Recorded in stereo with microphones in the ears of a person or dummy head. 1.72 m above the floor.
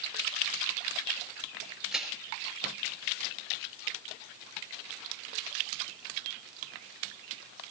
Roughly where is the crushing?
Centre.